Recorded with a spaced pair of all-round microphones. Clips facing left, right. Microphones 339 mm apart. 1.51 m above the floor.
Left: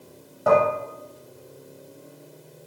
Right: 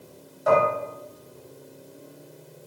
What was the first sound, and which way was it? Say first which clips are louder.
Dishes clattering: left 2 dB; 65° left (ahead or behind).